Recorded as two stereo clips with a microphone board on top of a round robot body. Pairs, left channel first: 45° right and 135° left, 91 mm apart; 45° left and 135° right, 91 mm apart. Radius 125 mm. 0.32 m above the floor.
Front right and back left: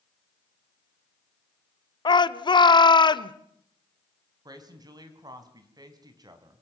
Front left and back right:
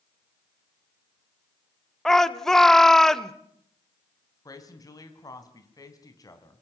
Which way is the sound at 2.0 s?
40° right.